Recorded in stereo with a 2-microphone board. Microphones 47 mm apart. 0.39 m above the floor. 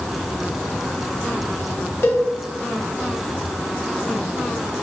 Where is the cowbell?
60° left (ahead or behind), 1.2 m.